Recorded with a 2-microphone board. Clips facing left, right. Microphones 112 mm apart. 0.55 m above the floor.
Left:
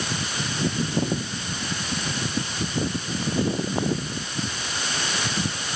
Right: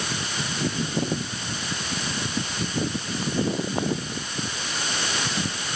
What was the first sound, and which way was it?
Only background noise.